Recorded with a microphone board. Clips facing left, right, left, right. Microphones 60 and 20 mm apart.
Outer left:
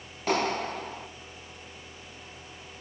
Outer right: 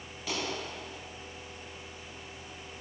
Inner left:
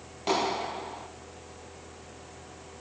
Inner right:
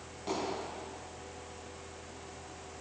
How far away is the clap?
About 3 m.